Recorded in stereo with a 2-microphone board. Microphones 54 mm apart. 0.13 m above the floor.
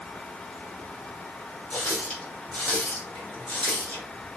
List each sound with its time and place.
1.7 s a running tap: 20° left (ahead or behind), 3 m